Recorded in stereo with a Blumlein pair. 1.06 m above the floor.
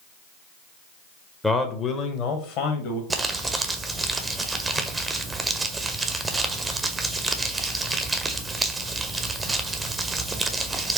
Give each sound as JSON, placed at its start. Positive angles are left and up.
{"t": 1.4, "sound": "a man speaking", "azimuth_deg": 5, "distance_m": 0.5}
{"t": 3.1, "sound": "crumpling", "azimuth_deg": -10, "distance_m": 0.5}